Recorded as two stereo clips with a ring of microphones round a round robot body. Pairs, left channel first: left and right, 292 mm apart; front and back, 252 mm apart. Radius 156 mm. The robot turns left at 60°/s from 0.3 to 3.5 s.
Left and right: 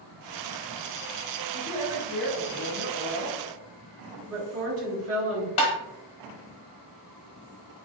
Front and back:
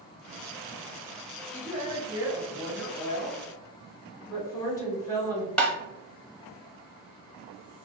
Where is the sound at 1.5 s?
155° left, 1.4 m; by 3.4 s 45° left, 1.4 m.